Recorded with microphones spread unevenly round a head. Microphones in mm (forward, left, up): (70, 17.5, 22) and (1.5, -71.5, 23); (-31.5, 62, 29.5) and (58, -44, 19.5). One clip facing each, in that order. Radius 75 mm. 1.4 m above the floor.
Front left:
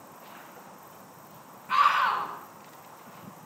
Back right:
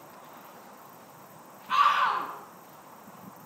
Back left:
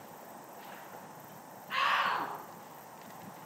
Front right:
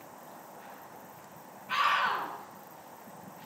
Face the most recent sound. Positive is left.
turn(degrees=-45)